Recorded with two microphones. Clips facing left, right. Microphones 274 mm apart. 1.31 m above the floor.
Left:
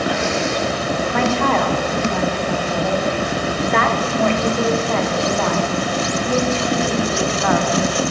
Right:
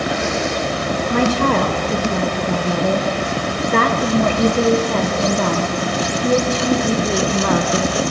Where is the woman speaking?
40° right (ahead or behind), 0.9 m.